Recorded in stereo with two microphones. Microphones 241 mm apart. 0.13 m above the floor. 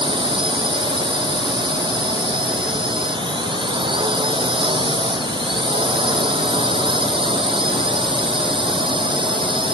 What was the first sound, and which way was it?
A drone, 20° right (ahead or behind).